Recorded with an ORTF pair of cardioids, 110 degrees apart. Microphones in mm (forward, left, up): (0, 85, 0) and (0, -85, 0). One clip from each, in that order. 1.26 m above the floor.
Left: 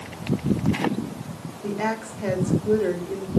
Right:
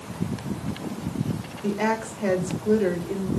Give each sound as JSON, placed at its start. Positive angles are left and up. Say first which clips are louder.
{"t": 1.6, "sound": "a woman speaking", "louder": "right 2 dB", "azimuth_deg": -5, "distance_m": 4.0}